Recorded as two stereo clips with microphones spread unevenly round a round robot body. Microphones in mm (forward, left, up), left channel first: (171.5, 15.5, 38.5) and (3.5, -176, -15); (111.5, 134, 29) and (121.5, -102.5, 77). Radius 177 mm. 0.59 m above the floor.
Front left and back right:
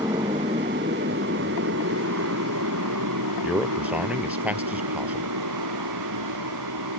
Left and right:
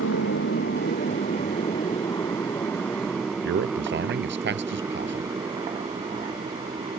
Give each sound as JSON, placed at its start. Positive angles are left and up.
{"t": 0.0, "sound": "a motorcycle", "azimuth_deg": 145}
{"t": 3.4, "sound": "a man speaking", "azimuth_deg": -45}